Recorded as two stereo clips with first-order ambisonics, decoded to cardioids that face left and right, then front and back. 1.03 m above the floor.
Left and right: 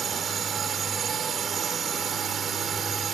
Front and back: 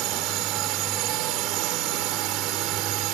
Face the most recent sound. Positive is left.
turn(degrees=-155)